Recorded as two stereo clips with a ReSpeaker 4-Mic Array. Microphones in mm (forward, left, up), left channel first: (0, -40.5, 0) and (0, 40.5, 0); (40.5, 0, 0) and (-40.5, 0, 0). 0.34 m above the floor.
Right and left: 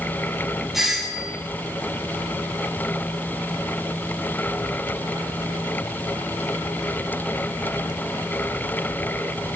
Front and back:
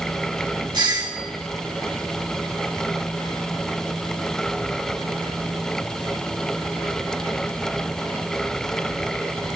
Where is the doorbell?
175° left, 4 m.